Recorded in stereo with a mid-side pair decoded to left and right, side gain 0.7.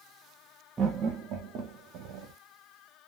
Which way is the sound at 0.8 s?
30° right.